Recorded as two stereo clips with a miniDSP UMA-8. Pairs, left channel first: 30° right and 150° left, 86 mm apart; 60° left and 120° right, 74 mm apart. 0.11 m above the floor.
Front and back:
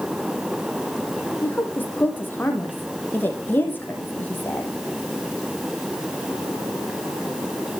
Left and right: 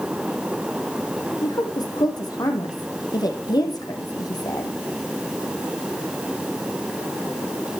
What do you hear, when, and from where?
1.4 s a woman speaking: 35° left, 4 m